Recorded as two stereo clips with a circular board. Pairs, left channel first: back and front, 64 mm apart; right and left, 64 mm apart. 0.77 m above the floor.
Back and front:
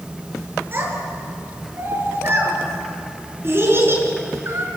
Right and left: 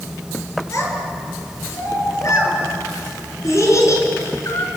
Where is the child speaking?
55° right, 8.5 m; by 4.7 s 50° right, 6.5 m.